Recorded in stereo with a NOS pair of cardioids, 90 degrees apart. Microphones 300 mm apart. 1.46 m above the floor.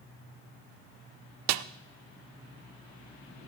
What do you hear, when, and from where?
1.5 s a snare drum: 60° right, 0.6 m